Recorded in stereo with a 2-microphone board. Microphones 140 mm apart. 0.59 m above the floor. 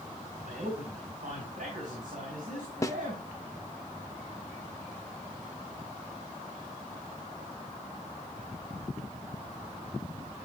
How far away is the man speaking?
About 4.5 m.